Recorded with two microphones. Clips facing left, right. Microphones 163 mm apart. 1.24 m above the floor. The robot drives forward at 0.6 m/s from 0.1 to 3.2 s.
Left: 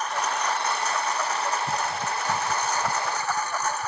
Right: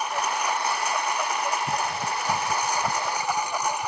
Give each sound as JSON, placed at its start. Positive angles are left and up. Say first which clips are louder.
{"t": 0.0, "sound": "a lawn mower", "louder": "even", "side_deg": -10}